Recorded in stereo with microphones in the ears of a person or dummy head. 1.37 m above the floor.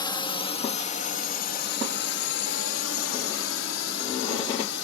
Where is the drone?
25° left (ahead or behind); by 4.8 s 65° left (ahead or behind).